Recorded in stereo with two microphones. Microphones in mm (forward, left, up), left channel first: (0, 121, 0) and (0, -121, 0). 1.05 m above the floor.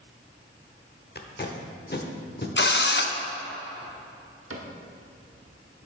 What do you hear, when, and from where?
1.1 s tape being pulled: 45° left (ahead or behind), 0.9 m
2.6 s a drill: 50° left (ahead or behind), 0.6 m
4.5 s a cupboard door: 70° right (ahead or behind), 1.1 m